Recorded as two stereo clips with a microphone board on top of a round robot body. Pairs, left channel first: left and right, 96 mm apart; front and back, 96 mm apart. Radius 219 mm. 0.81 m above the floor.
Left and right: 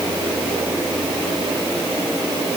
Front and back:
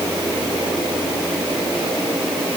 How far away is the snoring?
I don't hear snoring.